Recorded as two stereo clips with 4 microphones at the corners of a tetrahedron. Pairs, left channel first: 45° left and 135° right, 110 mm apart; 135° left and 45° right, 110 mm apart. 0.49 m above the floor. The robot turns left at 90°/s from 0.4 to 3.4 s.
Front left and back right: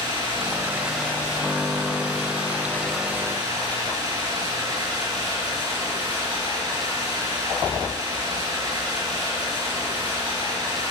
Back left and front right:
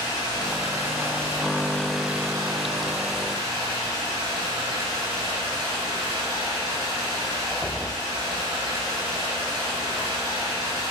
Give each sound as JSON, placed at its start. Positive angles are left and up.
{"t": 0.0, "sound": "running water", "azimuth_deg": -175, "distance_m": 4.5}